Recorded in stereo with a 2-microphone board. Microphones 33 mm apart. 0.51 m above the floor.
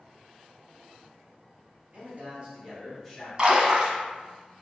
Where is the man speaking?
40° right (ahead or behind), 1.7 m; by 3.3 s 15° left (ahead or behind), 1.3 m.